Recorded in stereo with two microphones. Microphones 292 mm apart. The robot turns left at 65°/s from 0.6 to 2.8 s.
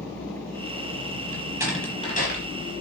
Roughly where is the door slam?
Right.